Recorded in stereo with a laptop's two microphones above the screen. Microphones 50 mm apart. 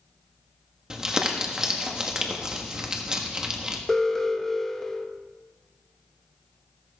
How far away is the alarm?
About 1.4 m.